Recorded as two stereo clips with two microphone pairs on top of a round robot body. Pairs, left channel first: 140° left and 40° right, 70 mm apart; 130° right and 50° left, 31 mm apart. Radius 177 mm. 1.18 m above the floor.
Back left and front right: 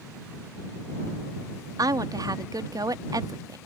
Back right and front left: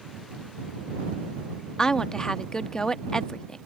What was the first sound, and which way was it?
A woman speaking, 65° right.